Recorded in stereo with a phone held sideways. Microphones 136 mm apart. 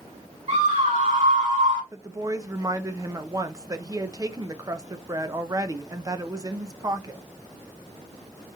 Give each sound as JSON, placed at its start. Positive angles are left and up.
{"t": 0.5, "sound": "a scream", "side_deg": -60, "distance_m": 2.5}
{"t": 1.9, "sound": "a woman speaking", "side_deg": -25, "distance_m": 0.6}